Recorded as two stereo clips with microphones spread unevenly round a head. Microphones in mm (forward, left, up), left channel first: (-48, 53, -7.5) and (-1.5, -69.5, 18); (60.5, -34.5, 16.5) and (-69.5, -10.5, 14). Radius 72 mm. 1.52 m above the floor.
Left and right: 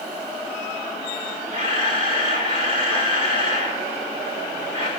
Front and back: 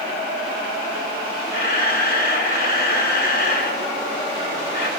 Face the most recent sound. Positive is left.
turn(degrees=-20)